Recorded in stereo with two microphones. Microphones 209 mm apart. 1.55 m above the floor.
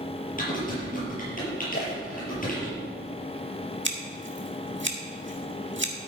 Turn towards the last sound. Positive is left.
turn(degrees=-60)  # may be behind; listen again after turning